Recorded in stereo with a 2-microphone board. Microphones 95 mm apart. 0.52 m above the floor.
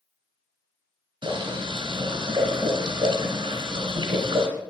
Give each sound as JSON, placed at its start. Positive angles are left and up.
{"t": 1.2, "sound": "boiling", "side_deg": -70, "distance_m": 3.0}